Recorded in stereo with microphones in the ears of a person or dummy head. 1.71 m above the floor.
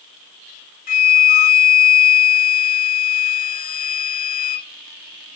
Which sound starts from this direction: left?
A flute, at 0.9 s.